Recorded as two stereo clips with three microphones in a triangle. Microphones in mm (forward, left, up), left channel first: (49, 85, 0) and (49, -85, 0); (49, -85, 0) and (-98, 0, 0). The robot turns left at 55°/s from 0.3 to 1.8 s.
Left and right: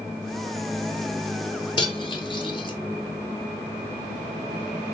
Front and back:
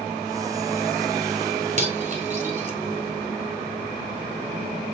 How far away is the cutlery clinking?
About 1.1 m.